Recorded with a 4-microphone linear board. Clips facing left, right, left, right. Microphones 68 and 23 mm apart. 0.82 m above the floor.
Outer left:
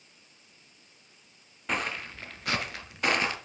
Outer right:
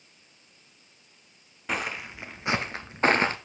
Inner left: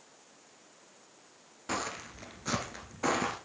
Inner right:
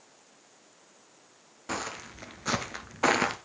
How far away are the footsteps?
About 1.0 m.